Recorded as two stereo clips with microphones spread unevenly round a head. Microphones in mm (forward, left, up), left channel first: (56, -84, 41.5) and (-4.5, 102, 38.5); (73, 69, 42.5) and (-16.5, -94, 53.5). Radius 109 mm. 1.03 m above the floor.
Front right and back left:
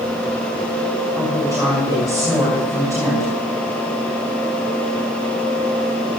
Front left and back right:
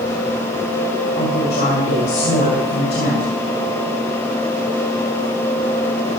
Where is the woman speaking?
35° left, 6 m.